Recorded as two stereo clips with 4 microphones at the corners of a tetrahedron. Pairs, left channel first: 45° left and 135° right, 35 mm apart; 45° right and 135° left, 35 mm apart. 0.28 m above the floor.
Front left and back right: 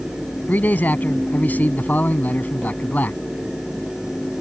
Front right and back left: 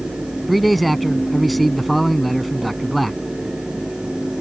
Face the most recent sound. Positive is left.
turn(degrees=45)